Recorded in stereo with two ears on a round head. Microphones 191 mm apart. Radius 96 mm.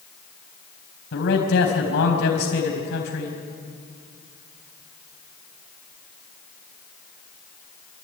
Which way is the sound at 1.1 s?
55° left (ahead or behind).